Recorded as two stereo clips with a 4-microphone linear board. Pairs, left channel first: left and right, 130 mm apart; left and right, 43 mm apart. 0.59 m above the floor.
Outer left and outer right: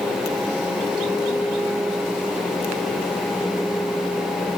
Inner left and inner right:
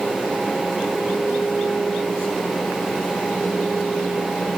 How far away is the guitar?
No guitar in this recording.